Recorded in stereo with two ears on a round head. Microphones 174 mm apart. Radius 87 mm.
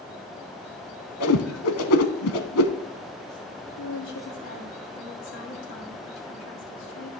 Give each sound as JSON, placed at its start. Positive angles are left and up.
{"t": 1.2, "sound": "a whoosh", "side_deg": 85, "distance_m": 0.9}
{"t": 3.8, "sound": "a woman speaking", "side_deg": 65, "distance_m": 2.5}